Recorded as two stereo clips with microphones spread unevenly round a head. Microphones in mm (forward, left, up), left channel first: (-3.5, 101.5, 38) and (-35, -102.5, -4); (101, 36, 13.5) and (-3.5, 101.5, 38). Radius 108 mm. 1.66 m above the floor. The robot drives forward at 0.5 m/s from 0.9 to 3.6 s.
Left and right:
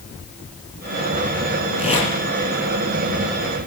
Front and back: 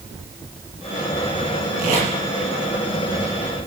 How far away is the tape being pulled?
About 8 m.